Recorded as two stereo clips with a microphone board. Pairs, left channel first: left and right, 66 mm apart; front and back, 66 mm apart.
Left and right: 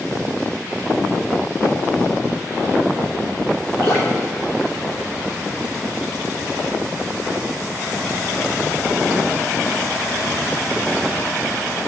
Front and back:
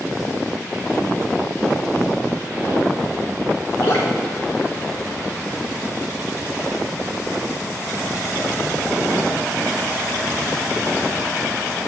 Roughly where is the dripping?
Ahead left.